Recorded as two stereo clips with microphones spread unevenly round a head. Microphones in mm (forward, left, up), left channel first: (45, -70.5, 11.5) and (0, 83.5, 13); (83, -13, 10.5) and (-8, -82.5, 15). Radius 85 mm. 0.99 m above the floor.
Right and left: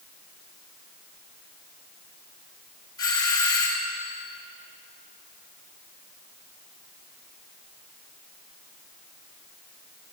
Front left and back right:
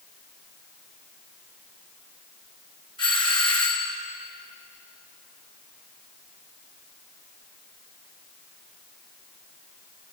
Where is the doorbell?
10° right, 4 m.